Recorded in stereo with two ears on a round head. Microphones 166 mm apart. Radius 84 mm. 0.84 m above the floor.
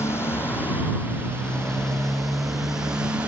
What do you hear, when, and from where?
0.0 s a motorcycle: 15° left (ahead or behind); by 3.3 s 5° right (ahead or behind)